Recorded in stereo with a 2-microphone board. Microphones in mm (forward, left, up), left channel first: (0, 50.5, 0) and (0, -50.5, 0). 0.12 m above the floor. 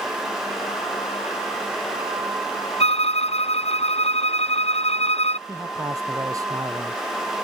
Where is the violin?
80° left.